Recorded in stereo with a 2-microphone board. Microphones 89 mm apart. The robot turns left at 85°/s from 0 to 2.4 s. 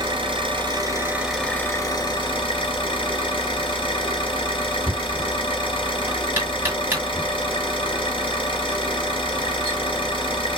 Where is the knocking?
20° right (ahead or behind), 2.5 m.